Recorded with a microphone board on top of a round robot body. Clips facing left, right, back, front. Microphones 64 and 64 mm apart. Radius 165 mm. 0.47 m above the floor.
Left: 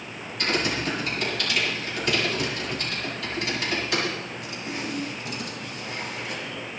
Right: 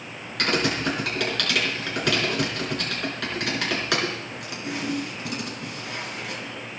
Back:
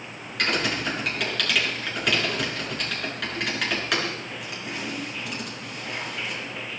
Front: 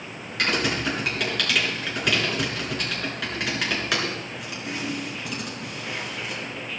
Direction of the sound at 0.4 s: 85° right.